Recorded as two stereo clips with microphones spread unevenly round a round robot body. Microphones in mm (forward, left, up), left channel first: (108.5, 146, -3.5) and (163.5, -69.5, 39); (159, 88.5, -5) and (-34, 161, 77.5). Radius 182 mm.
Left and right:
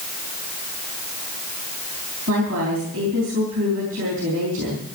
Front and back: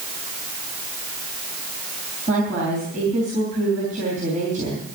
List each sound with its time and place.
2.3 s a woman speaking: 130° right, 4 m